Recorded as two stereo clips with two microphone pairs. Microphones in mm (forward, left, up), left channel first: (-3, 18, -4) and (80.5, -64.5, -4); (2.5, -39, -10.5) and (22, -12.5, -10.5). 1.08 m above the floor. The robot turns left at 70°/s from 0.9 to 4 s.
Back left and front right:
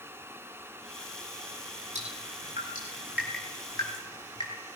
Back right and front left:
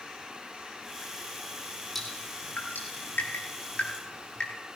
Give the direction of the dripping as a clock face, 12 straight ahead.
1 o'clock.